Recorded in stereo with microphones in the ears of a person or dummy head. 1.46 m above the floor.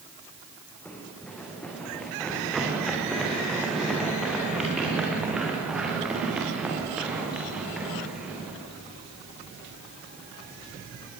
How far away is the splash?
I don't hear a splash.